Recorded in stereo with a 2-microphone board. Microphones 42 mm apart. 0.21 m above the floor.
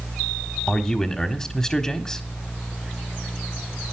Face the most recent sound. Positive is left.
turn(degrees=15)  # may be behind; listen again after turning